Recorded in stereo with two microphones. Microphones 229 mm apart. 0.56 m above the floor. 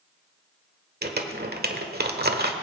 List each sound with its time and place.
1.0 s crumpling: 45° right (ahead or behind), 1.2 m